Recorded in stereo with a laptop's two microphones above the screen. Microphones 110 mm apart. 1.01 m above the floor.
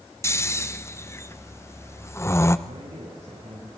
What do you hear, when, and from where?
0.2 s snoring: 25° left (ahead or behind), 0.8 m
2.7 s a man speaking: 85° right, 5.5 m